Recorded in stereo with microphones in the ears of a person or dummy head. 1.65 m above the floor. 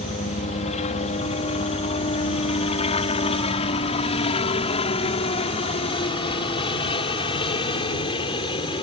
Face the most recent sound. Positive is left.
turn(degrees=25)  # may be behind; listen again after turning